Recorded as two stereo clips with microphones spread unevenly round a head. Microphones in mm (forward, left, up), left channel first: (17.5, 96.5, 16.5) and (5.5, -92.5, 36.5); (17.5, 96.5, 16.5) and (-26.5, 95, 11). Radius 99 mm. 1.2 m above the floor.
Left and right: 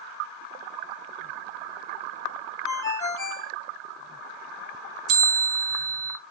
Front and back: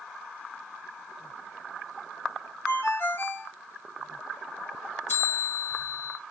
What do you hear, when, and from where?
2.6 s a ringtone: 10° left, 1.1 m
5.1 s a bell: 60° right, 0.5 m